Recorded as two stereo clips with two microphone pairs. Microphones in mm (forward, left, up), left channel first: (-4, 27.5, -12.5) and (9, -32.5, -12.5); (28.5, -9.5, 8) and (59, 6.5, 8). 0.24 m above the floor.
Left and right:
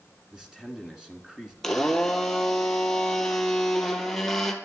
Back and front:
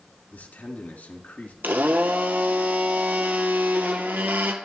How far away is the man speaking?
About 2.5 m.